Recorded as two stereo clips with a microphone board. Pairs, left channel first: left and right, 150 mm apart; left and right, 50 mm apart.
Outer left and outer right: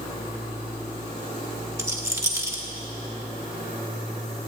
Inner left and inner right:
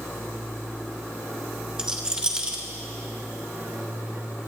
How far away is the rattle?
About 1.2 m.